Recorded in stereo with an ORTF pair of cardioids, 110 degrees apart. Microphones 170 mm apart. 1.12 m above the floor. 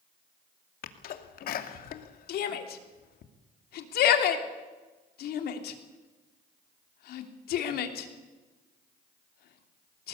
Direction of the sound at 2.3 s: 70° left.